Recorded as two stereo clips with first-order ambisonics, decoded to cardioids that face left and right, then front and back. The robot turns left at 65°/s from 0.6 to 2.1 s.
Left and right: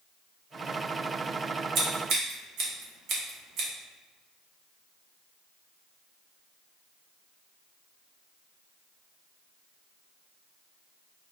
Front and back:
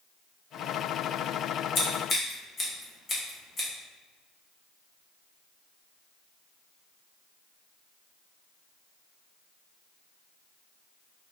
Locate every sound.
1.8 s scissors: 40° right, 0.9 m; by 3.7 s 65° right, 0.9 m